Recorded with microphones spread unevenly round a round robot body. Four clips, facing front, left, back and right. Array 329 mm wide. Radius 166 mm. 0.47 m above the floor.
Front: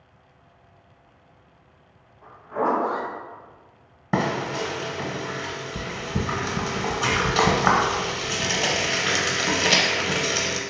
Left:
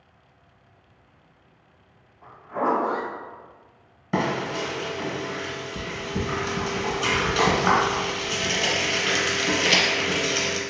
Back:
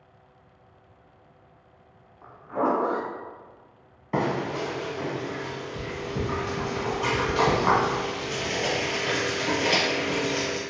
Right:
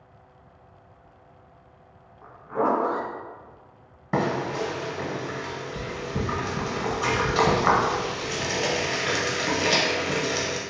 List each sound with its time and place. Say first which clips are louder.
2.2 s a zipper: right 1 dB, front 1 dB; 135° right, 1.2 m
4.1 s frying: even, front 2 dB; 5° right, 0.8 m